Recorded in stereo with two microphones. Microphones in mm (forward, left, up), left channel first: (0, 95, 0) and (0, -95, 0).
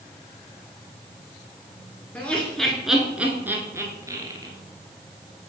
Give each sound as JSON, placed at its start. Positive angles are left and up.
{"t": 2.1, "sound": "laughter", "side_deg": 10, "distance_m": 1.3}